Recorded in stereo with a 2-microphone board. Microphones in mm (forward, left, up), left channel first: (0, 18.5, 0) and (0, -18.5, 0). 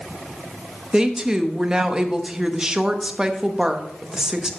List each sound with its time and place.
0.9 s a woman speaking: 20° right (ahead or behind), 0.9 m